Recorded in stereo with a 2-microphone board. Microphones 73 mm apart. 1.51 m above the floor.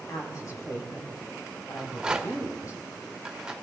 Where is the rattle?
10° right (ahead or behind), 1.4 m.